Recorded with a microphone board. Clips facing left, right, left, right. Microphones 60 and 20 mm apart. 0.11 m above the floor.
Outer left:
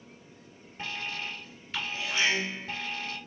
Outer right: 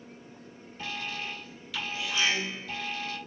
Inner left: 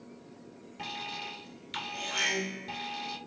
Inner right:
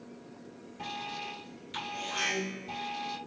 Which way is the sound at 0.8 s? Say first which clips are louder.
Even, even; 35° left (ahead or behind).